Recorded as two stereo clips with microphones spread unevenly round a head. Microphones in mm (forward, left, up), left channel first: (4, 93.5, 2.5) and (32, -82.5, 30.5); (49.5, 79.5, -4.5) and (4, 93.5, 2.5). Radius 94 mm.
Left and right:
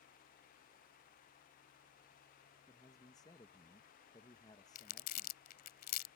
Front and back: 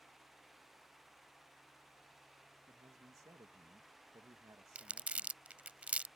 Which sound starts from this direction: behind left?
Crumpling, at 4.8 s.